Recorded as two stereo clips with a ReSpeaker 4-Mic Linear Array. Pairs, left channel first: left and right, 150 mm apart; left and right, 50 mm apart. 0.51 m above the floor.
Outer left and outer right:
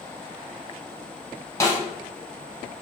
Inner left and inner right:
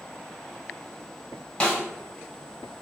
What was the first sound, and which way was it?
A snare drum, 20° left (ahead or behind).